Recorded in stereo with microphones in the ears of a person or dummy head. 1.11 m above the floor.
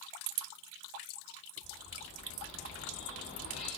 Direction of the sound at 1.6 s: 65° left (ahead or behind).